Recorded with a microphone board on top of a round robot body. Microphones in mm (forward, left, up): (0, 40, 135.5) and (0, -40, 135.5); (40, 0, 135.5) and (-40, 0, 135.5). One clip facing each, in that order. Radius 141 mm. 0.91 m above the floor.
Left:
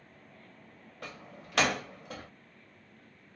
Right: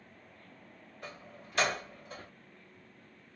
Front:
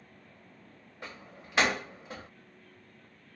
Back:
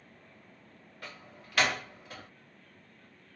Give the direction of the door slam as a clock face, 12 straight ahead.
10 o'clock.